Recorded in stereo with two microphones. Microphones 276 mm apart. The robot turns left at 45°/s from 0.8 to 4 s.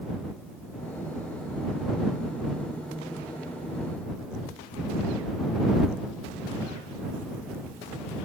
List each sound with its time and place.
Only background noise.